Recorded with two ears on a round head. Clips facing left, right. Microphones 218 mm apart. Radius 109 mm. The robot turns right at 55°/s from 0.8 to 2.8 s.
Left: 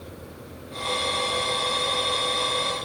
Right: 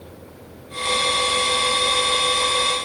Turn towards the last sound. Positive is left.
No sound to turn to.